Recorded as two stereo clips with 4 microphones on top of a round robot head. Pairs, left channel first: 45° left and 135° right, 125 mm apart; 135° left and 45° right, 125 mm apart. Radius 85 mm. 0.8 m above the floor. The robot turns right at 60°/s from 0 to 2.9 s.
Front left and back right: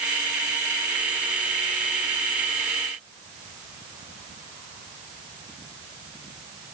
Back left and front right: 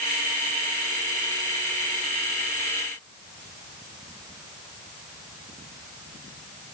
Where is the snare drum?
No snare drum in this recording.